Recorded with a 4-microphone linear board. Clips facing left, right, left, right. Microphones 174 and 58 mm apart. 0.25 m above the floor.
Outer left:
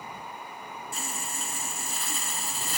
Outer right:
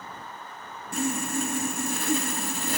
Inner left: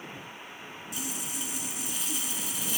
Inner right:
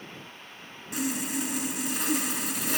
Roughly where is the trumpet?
I don't hear a trumpet.